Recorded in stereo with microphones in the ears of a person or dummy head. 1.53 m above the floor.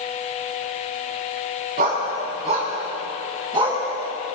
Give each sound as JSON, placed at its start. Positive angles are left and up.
{"t": 1.8, "sound": "a dog barking", "side_deg": -45, "distance_m": 5.5}